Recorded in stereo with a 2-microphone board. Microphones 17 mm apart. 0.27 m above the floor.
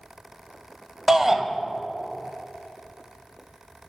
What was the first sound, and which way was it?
A shout, 25° right (ahead or behind).